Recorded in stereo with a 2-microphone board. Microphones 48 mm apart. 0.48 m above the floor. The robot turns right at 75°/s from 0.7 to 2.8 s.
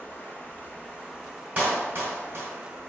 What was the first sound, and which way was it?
Running water, 145° left.